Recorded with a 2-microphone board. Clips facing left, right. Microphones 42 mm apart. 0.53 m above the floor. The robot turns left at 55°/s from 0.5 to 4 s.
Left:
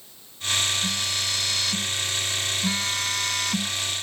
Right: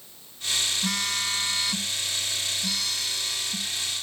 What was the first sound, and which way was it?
A phone buzzing, 115° right.